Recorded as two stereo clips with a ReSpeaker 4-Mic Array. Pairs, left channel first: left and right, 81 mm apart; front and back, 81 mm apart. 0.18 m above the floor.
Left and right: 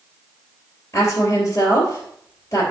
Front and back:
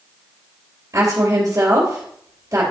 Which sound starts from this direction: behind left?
A woman speaking, at 0.9 s.